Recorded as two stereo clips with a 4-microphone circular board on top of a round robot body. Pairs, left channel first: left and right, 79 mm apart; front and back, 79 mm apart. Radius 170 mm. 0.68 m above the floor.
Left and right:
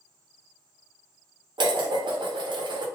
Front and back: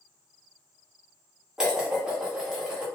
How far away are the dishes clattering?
About 0.6 m.